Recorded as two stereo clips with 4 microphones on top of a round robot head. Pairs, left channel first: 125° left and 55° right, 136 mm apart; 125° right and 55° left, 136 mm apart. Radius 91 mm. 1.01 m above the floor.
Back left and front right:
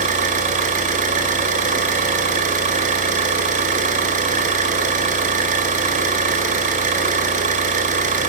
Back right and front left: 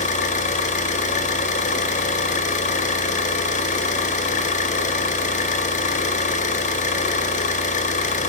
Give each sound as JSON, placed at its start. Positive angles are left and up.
{"t": 0.0, "sound": "an engine running", "azimuth_deg": -90, "distance_m": 4.5}